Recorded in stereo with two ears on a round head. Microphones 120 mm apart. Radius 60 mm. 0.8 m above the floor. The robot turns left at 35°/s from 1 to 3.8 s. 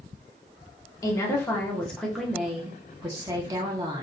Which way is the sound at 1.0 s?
40° left.